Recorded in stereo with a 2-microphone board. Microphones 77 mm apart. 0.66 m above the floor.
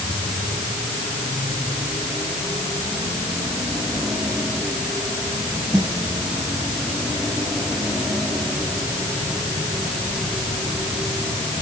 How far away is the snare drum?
About 10 m.